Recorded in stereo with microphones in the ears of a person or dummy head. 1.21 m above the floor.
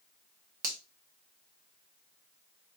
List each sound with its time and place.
0.6 s a finger snap: 45° right (ahead or behind), 0.5 m